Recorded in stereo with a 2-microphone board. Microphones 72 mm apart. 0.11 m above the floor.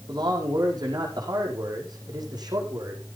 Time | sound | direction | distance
0.1 | a man speaking | 70° right (ahead or behind) | 5.5 m